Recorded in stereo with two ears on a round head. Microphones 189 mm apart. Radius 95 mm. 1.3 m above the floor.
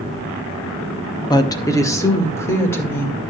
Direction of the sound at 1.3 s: 20° left (ahead or behind).